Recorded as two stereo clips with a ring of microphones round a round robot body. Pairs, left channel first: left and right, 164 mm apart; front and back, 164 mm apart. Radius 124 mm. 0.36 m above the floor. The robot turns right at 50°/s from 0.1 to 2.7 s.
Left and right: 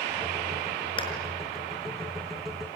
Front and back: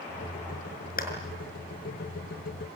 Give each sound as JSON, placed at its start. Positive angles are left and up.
{"t": 1.0, "sound": "a clap", "azimuth_deg": 30, "distance_m": 6.0}